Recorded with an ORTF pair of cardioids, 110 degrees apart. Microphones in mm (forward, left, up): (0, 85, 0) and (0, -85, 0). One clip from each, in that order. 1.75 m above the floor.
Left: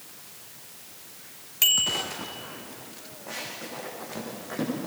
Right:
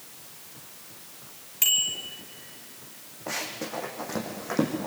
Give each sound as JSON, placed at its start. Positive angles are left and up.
{"t": 1.6, "sound": "a bicycle bell", "azimuth_deg": 15, "distance_m": 3.5}
{"t": 3.3, "sound": "running footsteps", "azimuth_deg": -55, "distance_m": 6.5}